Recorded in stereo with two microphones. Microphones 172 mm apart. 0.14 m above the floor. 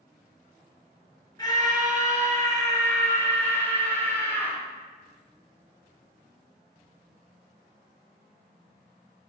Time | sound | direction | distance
1.4 | a scream | 25° left (ahead or behind) | 2 m